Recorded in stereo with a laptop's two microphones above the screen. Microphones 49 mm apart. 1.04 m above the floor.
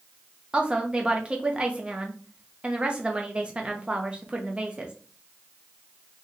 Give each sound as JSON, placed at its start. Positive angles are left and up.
{"t": 0.5, "sound": "a woman speaking", "side_deg": -25, "distance_m": 0.5}